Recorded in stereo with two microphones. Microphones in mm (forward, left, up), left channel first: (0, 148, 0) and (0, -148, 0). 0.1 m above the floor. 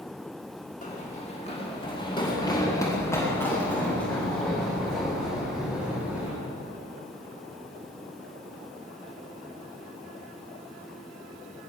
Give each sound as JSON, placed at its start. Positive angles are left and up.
{"t": 0.8, "sound": "running footsteps", "side_deg": 25, "distance_m": 7.5}